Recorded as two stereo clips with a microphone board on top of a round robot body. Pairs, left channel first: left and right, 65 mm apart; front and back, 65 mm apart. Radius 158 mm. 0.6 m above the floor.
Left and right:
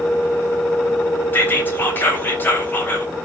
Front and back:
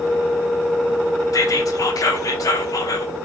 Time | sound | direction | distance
1.3 | whispering | 30° left | 3.5 m